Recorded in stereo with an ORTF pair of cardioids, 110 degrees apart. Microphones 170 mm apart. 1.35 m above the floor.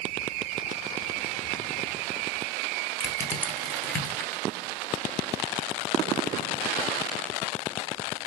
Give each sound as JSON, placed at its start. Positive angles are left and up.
{"t": 3.0, "sound": "crushing", "azimuth_deg": 15, "distance_m": 1.0}